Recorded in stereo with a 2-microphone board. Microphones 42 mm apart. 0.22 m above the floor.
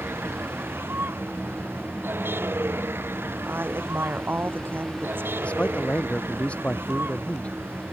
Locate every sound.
0.0 s a vehicle: 70° right (ahead or behind); by 7.9 s 65° right (ahead or behind)
3.4 s a woman speaking: 60° right (ahead or behind)
5.4 s a man speaking: 30° left (ahead or behind)